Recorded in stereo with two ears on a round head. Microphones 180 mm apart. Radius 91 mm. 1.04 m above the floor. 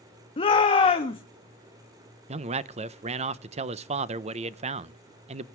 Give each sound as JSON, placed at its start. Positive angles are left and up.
{"t": 0.4, "sound": "a shout", "side_deg": 30, "distance_m": 1.3}
{"t": 2.3, "sound": "a man speaking", "side_deg": -35, "distance_m": 0.7}